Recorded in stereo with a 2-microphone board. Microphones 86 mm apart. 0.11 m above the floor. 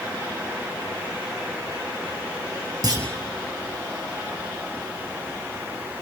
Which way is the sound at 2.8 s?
45° right (ahead or behind).